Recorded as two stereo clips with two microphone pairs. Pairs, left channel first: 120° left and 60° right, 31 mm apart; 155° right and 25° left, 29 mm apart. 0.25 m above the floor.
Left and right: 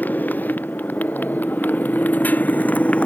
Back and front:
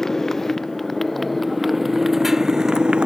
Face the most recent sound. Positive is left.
turn(degrees=80)